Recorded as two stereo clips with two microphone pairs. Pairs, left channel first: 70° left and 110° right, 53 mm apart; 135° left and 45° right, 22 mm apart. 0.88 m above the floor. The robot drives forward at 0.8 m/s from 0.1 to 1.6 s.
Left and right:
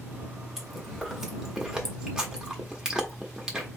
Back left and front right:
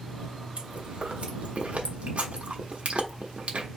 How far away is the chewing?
About 2 m.